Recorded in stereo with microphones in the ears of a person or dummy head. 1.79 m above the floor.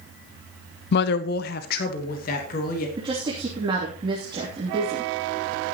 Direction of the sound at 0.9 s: 55° left (ahead or behind).